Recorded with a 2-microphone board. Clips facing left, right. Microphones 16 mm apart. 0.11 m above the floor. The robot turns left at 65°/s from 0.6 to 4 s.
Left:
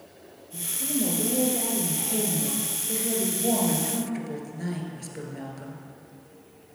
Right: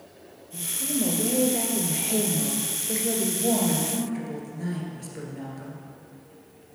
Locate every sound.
0.5 s a woman speaking: 10° left, 1.9 m; by 5.8 s 150° left, 1.9 m